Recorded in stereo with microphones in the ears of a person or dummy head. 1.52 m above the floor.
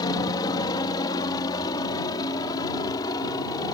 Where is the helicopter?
20° left (ahead or behind).